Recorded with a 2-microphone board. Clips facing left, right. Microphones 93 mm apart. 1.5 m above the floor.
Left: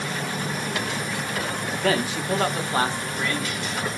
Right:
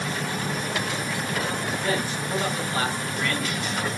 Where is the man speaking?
75° left (ahead or behind), 0.6 m; by 3.7 s centre (ahead or behind), 1.1 m.